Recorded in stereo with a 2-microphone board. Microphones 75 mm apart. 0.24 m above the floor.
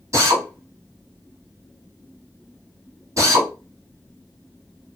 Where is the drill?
45° right (ahead or behind), 1.3 m.